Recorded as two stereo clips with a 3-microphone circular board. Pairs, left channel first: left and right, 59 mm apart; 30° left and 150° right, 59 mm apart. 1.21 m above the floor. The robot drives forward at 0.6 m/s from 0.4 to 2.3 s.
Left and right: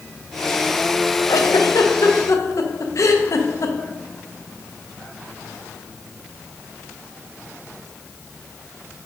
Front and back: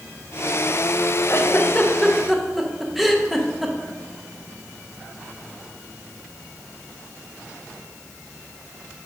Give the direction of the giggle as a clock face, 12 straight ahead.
10 o'clock.